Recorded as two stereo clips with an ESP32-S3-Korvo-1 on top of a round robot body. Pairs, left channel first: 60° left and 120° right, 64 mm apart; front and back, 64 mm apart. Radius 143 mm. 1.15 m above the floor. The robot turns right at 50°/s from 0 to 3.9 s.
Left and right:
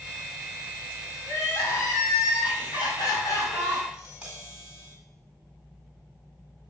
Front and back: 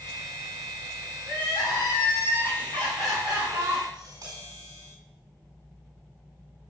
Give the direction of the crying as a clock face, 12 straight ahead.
12 o'clock.